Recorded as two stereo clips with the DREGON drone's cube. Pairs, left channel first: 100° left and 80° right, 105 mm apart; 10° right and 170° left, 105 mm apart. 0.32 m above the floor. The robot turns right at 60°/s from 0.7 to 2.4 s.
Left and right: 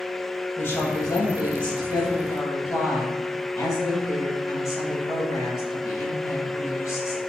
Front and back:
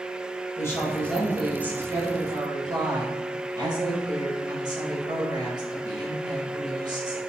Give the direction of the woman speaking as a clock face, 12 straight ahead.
11 o'clock.